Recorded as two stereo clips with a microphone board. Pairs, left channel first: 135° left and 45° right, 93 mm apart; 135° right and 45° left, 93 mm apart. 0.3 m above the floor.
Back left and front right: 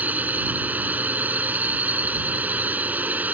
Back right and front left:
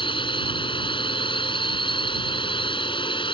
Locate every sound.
0.0 s a drone: 115° right